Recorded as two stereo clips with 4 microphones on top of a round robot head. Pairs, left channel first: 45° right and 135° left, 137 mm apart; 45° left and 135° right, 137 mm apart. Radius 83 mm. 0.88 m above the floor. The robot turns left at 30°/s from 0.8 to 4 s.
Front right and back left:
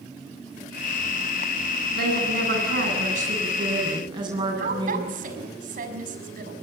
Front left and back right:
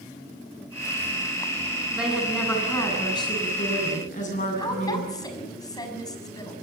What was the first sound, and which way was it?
A woman speaking, 140° left.